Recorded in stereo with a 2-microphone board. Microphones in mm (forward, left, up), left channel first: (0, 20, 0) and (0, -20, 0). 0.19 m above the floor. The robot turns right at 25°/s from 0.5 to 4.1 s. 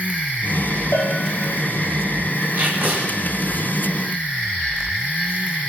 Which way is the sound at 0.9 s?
75° left (ahead or behind).